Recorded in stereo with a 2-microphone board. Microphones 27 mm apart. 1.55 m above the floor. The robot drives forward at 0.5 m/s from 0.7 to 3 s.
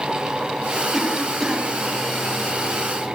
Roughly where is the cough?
Centre.